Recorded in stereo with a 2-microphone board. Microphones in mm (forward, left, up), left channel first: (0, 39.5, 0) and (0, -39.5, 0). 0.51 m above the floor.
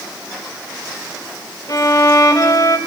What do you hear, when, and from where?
1.7 s a violin: 45° left (ahead or behind), 1.4 m